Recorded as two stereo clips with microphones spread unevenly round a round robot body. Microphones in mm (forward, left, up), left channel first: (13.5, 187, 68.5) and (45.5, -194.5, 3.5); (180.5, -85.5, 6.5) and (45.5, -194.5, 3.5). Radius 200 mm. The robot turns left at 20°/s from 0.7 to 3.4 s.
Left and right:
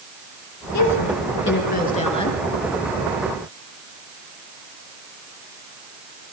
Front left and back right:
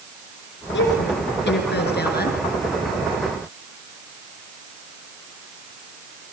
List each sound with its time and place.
0.7 s a woman speaking: 45° left, 5.5 m; by 2.4 s 15° left, 5.5 m